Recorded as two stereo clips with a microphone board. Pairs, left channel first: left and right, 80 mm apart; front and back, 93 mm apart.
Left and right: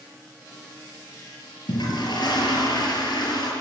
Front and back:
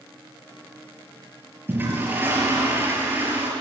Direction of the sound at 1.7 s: 115° left.